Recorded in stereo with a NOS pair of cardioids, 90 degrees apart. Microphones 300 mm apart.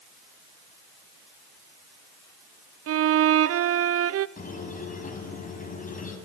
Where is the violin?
50° right, 0.6 m.